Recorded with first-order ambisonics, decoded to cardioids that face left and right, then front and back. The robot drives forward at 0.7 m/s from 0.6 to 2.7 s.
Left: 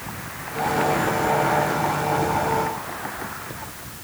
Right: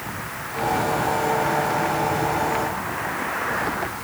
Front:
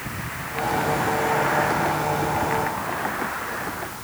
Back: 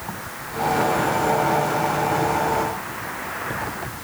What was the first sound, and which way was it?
Only background noise.